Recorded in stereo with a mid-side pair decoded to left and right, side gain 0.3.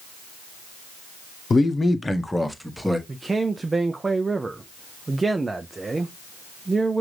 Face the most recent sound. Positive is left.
turn(degrees=-35)